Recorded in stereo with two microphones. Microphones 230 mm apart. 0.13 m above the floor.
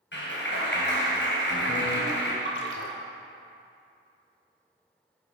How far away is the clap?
About 2 m.